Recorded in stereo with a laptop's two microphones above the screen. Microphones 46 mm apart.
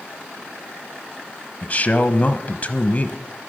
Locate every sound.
1.6 s a man speaking: 30° left (ahead or behind), 1.0 m